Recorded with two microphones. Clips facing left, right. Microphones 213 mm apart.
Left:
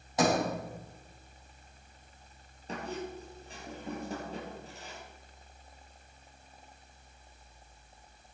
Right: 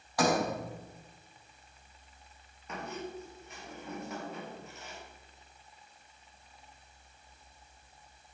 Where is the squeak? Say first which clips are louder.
Left 2 dB; 30° left (ahead or behind), 4 m.